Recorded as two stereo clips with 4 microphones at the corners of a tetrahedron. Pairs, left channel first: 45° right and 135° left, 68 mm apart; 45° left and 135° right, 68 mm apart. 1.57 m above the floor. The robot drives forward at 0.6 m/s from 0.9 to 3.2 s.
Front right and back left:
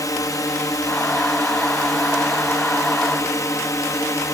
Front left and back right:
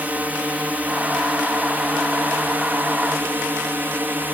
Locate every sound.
0.0 s a drone: 70° right; by 4.3 s 75° right